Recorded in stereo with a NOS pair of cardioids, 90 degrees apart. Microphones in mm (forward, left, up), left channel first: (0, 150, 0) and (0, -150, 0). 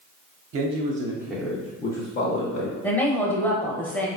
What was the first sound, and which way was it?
A man speaking, 50° right.